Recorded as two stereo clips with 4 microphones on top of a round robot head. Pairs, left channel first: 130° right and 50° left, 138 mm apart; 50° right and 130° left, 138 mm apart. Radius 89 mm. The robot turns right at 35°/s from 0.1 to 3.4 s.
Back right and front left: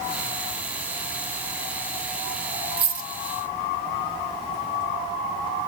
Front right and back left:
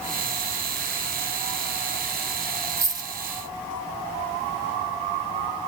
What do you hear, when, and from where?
2.8 s a dropped coin: 60° left, 1.0 m; by 3.1 s 75° left, 1.0 m